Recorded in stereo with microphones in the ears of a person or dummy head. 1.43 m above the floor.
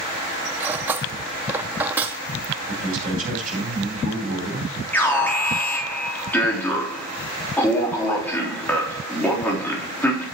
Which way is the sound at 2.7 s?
45° right (ahead or behind).